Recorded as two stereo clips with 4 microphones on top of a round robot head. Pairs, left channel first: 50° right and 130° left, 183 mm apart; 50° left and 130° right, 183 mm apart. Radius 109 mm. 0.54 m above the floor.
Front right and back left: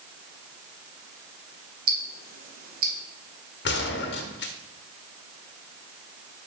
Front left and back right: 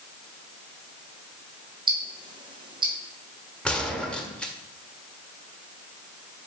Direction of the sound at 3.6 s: 35° right.